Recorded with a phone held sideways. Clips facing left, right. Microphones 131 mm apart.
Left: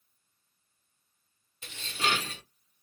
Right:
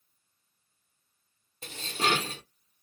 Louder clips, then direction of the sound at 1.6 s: Right 3 dB; 40° right (ahead or behind).